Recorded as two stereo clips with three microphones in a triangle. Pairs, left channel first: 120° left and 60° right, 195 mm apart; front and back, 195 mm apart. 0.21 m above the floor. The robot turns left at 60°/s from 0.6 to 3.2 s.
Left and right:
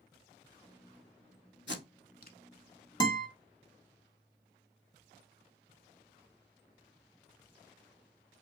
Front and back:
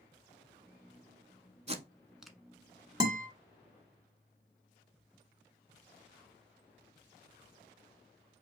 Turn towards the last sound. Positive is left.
turn(degrees=135)